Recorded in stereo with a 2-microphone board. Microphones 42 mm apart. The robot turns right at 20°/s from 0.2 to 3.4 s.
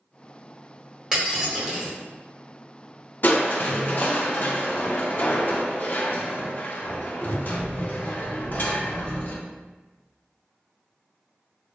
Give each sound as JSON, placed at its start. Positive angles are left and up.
{"t": 1.1, "sound": "breaking glass", "side_deg": -20, "distance_m": 1.5}
{"t": 3.2, "sound": "crushing", "side_deg": 50, "distance_m": 0.6}